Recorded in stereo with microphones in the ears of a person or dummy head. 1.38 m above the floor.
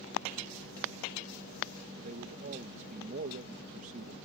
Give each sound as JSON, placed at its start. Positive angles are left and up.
{"t": 2.0, "sound": "a man speaking", "side_deg": -45}